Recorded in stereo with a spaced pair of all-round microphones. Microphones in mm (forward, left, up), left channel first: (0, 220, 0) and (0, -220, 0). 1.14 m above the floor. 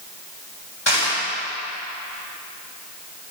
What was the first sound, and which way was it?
Crushing, 70° left (ahead or behind).